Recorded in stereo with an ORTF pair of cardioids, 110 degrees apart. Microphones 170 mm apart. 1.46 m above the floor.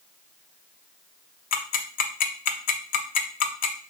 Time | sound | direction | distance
1.5 | ticking | 55° left | 0.6 m